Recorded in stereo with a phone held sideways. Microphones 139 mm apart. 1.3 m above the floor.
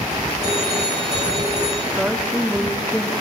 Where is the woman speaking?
10° right (ahead or behind), 3.5 m.